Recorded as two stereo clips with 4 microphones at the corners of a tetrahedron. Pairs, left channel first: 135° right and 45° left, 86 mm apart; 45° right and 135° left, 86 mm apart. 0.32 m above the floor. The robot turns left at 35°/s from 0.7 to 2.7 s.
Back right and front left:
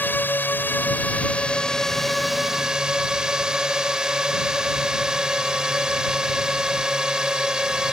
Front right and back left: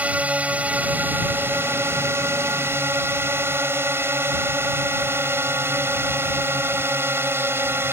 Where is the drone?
170° right; by 7.9 s 120° left.